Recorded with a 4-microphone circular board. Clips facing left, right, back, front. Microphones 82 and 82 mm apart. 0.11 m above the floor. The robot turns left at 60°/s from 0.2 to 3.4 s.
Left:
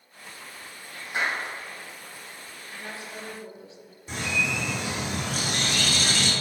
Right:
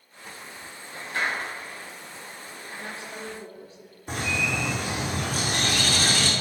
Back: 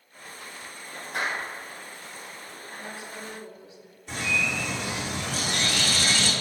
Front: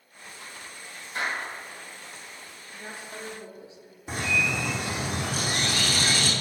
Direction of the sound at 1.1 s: 165° left.